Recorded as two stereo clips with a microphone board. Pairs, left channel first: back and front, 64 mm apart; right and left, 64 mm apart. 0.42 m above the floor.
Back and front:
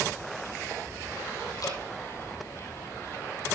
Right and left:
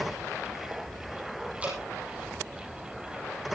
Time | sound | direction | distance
1.6 | dripping | 160° left | 5 m